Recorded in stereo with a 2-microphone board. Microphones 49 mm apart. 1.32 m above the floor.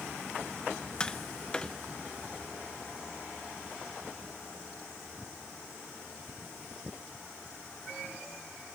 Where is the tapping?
20° left (ahead or behind).